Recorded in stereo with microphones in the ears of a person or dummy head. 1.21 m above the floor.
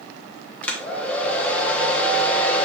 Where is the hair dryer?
10° left (ahead or behind), 1.0 m.